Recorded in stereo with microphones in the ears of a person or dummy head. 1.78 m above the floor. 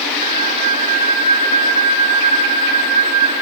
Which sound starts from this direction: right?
A flute, at 0.2 s.